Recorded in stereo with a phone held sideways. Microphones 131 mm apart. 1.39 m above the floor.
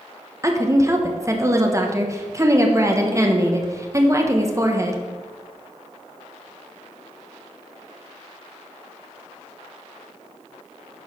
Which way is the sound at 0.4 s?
25° right (ahead or behind).